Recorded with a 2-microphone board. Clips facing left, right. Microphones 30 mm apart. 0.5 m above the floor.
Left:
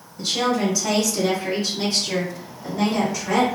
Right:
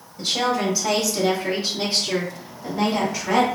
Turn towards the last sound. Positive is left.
turn(degrees=-25)  # may be behind; listen again after turning